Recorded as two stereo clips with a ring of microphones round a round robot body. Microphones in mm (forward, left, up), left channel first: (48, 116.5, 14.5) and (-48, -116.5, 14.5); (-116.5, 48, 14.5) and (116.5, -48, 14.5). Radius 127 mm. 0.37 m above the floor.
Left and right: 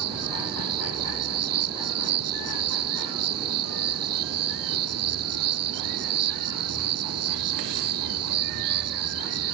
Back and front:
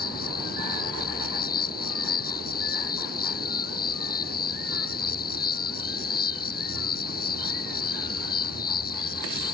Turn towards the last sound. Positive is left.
turn(degrees=-145)